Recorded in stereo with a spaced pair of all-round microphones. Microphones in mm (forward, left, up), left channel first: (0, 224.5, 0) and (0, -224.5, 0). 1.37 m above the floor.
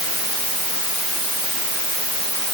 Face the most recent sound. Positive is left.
No sound to turn to.